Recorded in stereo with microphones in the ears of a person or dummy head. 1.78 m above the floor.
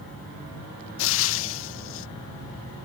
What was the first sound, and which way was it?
Frying, 75° left (ahead or behind).